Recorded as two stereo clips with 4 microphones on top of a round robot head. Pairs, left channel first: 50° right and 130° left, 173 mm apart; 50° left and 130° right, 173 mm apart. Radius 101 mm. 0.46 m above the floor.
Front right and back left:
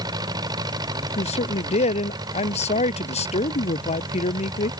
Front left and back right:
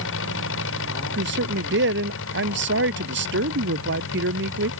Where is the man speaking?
105° right.